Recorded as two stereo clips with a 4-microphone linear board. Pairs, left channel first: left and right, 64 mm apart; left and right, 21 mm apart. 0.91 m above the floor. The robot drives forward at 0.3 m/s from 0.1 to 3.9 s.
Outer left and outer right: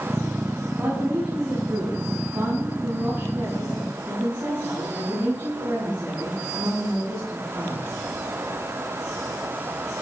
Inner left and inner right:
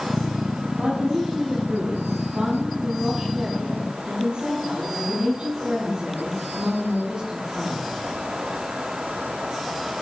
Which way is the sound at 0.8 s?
25° right (ahead or behind).